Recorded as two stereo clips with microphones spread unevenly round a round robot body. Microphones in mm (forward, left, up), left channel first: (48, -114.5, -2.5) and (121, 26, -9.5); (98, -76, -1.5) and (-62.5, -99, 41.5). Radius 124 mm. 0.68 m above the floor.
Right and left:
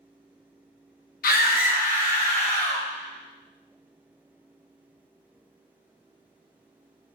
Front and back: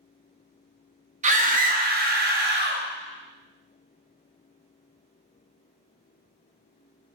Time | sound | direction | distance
1.2 | a scream | 125° right | 1.3 m